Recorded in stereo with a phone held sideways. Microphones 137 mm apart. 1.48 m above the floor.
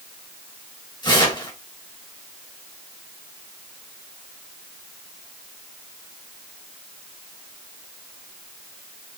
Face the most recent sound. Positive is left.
turn(degrees=35)  # may be behind; listen again after turning